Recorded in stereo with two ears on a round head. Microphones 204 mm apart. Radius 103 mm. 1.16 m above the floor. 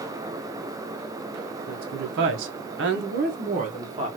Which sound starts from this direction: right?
A woman speaking, at 1.7 s.